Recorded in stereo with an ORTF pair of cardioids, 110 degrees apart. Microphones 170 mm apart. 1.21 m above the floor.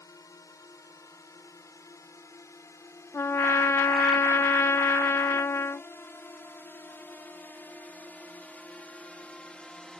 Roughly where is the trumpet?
Ahead.